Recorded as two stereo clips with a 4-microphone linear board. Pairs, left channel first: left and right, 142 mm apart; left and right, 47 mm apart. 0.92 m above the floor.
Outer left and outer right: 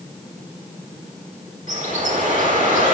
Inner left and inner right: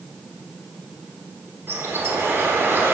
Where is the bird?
65° right (ahead or behind), 1.4 m.